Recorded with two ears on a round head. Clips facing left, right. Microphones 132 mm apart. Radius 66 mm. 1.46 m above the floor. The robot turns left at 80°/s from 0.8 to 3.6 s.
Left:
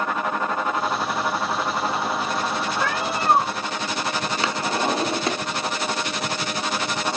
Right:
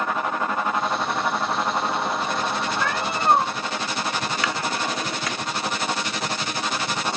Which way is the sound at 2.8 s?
25° left.